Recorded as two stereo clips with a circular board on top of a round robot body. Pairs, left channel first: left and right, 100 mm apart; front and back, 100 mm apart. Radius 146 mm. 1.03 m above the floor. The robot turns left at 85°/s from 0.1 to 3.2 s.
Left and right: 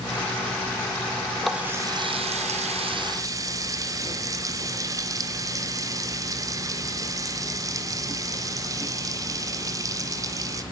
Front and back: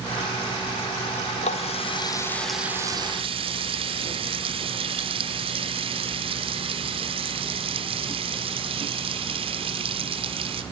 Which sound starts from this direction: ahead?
A running tap, at 1.4 s.